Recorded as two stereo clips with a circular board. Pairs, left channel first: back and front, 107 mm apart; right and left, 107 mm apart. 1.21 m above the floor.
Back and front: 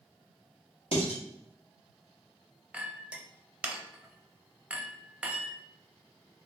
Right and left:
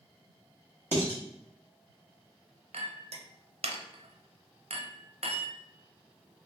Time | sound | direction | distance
0.9 | dishes clattering | 160° right | 1.6 m
2.7 | a clink | 80° left | 0.6 m